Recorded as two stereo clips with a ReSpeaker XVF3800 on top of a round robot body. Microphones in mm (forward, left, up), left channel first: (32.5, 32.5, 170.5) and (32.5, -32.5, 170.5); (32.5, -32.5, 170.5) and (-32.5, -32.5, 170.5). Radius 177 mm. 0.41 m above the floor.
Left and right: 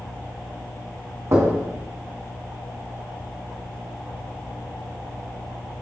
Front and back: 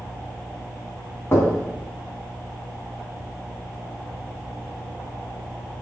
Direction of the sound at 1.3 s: 50° right.